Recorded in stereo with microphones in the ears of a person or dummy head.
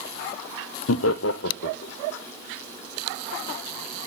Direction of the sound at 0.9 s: 70° left (ahead or behind).